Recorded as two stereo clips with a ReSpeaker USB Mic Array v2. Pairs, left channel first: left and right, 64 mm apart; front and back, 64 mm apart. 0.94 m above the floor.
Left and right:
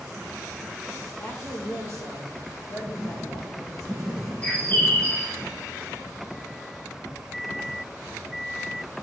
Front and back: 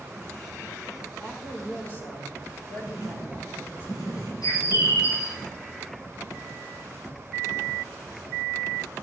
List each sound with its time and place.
1.2 s a woman speaking: 55° left, 3 m
2.9 s writing: straight ahead, 4.5 m
4.4 s a bird: 25° left, 1.6 m